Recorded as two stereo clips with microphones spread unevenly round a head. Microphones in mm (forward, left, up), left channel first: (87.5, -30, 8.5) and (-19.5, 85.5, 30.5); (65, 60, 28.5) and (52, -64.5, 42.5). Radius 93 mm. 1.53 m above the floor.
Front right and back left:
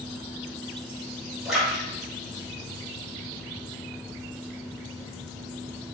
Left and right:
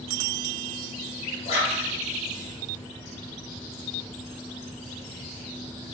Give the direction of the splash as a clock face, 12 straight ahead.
10 o'clock.